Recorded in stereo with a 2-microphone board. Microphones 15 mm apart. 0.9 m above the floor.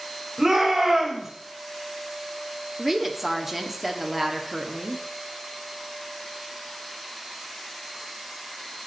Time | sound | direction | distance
0.4 | a shout | 30° right (ahead or behind) | 3.5 m
2.8 | a woman speaking | 15° right (ahead or behind) | 1.6 m